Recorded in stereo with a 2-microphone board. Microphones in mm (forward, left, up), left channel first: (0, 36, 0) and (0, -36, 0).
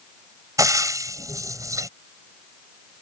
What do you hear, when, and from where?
0.6 s frying: 50° right (ahead or behind)